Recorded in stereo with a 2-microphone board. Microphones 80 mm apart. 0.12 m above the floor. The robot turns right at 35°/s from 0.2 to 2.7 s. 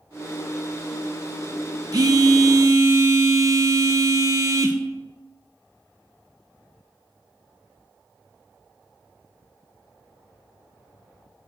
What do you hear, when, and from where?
1.9 s a phone buzzing: 50° right (ahead or behind), 0.6 m; by 4.8 s 40° right (ahead or behind), 0.6 m